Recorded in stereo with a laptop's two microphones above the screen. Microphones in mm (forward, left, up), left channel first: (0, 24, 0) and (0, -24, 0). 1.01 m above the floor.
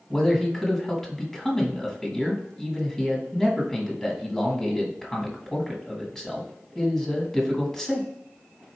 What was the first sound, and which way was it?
A man speaking, 10° left (ahead or behind).